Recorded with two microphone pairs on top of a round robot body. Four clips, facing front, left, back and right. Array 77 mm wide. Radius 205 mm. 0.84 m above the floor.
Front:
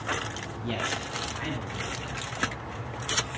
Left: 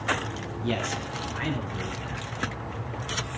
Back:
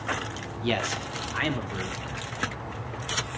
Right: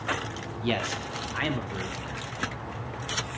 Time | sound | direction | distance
0.6 | a man speaking | 145° right | 3 m